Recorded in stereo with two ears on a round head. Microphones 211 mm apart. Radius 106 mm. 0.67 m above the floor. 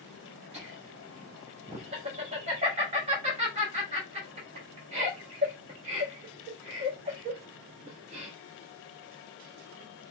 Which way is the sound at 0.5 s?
25° right (ahead or behind).